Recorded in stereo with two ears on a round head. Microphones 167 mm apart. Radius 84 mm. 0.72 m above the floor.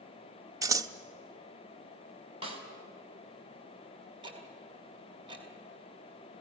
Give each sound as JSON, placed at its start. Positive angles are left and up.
{"t": 0.6, "sound": "scissors", "side_deg": -20, "distance_m": 0.6}
{"t": 2.4, "sound": "a snare drum", "side_deg": -30, "distance_m": 2.5}
{"t": 4.2, "sound": "ticking", "side_deg": -25, "distance_m": 2.5}